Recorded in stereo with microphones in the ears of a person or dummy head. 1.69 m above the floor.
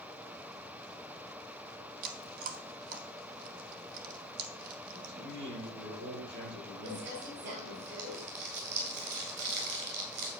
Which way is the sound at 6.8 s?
60° right (ahead or behind).